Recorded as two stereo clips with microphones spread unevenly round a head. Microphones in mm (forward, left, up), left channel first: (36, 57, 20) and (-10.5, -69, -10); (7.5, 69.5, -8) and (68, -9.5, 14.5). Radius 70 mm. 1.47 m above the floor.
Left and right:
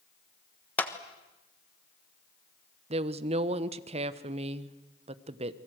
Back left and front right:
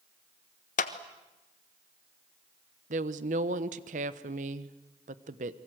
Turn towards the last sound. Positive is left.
turn(degrees=-65)